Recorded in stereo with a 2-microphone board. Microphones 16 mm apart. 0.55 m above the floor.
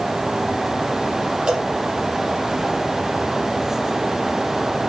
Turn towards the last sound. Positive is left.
turn(degrees=-85)